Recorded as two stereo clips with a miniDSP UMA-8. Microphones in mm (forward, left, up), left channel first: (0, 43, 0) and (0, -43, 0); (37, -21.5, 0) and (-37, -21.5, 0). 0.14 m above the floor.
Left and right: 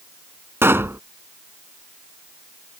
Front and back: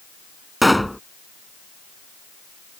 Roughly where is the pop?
Right.